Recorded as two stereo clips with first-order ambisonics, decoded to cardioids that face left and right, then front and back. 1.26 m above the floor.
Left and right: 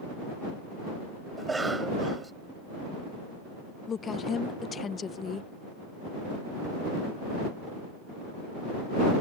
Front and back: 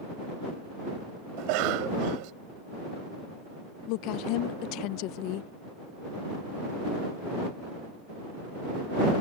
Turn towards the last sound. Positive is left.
turn(degrees=25)